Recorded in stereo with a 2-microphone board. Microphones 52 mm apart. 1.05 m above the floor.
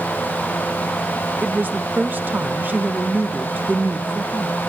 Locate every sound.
1.4 s a woman speaking: 40° right (ahead or behind), 0.8 m